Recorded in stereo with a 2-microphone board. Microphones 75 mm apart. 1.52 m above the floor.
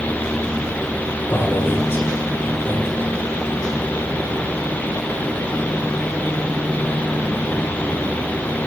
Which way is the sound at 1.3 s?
35° left (ahead or behind).